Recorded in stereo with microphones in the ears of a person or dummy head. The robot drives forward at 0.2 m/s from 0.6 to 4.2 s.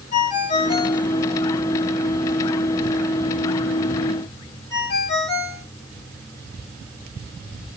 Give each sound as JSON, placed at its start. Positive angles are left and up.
{"t": 0.1, "sound": "a ringtone", "side_deg": 25, "distance_m": 1.1}